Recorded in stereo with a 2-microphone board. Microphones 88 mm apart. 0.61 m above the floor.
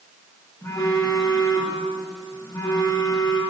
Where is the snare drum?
I don't hear a snare drum.